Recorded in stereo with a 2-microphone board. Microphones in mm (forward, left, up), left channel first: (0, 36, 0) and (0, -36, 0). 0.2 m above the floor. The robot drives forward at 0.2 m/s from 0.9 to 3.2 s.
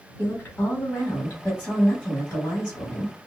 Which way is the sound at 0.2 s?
25° left (ahead or behind).